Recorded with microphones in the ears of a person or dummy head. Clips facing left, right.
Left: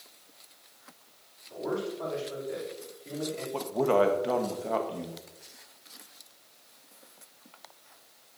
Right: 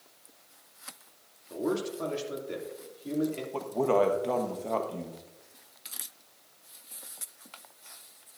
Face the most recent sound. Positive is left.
turn(degrees=-5)  # may be behind; listen again after turning